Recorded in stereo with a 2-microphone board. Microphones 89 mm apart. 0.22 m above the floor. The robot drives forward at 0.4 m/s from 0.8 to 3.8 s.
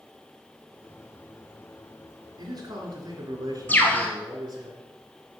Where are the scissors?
I don't hear scissors.